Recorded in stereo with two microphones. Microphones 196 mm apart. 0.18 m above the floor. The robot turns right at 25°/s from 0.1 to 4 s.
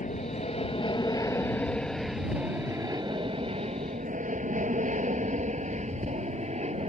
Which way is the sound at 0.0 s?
40° left (ahead or behind).